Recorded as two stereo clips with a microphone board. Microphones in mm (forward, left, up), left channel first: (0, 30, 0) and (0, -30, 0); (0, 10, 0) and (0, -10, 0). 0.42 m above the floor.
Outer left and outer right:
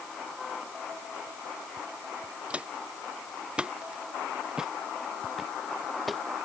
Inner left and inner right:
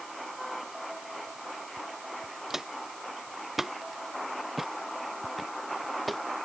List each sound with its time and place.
2.5 s footsteps: 20° right (ahead or behind); by 6.2 s centre (ahead or behind)